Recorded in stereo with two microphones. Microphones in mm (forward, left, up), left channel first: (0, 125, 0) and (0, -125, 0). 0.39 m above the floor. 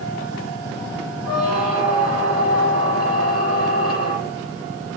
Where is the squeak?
70° left (ahead or behind), 7 m.